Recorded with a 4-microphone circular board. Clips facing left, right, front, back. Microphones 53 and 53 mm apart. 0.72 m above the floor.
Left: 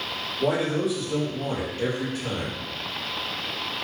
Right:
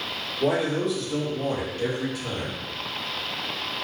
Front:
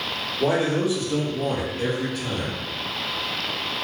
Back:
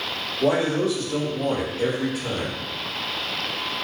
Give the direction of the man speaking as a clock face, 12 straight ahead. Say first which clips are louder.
Even, back 1 dB; 12 o'clock.